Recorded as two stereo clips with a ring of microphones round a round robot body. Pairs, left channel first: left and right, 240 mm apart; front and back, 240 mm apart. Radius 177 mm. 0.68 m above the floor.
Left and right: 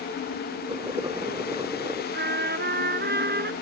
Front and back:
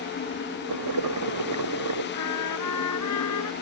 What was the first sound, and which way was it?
Boiling, 170° right.